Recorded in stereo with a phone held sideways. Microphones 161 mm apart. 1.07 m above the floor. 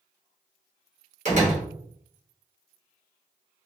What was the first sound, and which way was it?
A door slam, 50° right (ahead or behind).